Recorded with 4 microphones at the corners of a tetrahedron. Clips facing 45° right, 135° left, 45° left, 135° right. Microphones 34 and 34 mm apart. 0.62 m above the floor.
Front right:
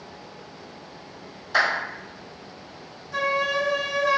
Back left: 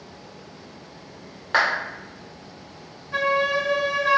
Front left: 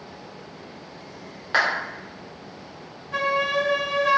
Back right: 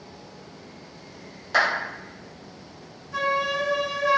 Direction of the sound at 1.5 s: 100° left.